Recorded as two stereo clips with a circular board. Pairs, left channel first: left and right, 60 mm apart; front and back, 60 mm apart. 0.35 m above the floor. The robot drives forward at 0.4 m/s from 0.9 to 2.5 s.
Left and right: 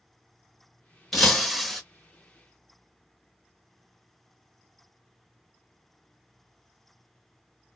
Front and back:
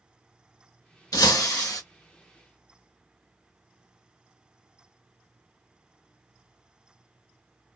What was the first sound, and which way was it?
Breaking glass, 5° left.